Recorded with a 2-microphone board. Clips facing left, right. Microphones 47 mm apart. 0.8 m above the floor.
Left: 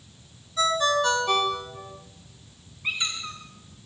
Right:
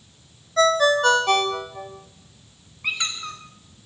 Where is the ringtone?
75° right (ahead or behind), 2 m.